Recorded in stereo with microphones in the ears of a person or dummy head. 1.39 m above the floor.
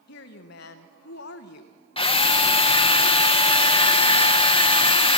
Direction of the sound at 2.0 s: 35° left (ahead or behind).